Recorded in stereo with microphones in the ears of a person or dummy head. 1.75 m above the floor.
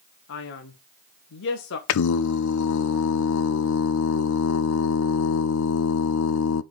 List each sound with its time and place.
0.3 s a man speaking: 60° left (ahead or behind), 1.2 m
1.9 s singing: 80° left, 0.6 m